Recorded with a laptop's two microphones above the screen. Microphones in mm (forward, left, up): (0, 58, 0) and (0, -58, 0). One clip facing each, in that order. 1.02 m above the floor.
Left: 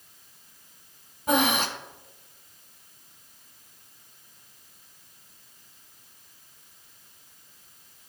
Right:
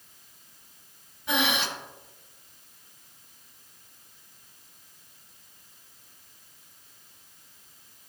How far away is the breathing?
About 0.5 m.